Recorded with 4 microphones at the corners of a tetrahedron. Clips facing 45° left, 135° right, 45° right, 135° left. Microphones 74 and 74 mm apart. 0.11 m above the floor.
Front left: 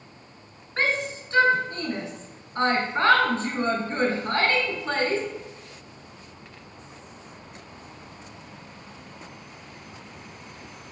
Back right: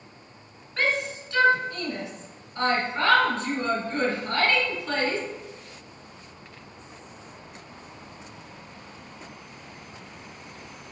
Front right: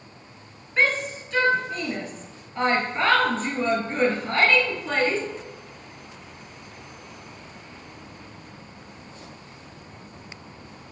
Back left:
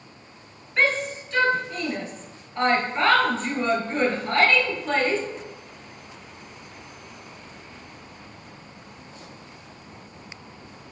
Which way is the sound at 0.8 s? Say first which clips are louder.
Even, even; 40° left.